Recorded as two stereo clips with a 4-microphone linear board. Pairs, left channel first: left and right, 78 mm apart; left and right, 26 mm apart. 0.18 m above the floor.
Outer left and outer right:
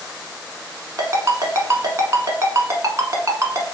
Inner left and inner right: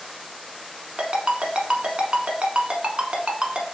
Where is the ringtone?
40° right (ahead or behind), 0.8 m.